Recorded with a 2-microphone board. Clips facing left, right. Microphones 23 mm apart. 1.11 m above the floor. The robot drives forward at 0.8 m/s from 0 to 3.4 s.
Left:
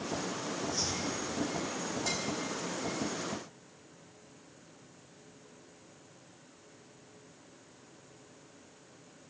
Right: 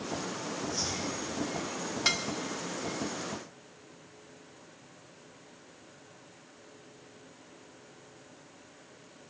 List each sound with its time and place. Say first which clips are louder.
0.7 s chopping: right 1 dB; 5° right (ahead or behind), 9.5 m
2.0 s dishes clattering: right 8 dB; 80° right, 1.5 m; by 2.2 s 75° right (ahead or behind), 1.5 m